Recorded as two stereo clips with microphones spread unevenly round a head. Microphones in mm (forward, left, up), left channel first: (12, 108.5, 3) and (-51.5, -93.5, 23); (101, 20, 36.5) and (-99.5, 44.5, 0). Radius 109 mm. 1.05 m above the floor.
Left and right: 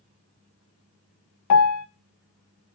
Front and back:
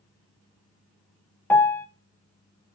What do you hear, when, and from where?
1.5 s a piano: 75° left, 0.5 m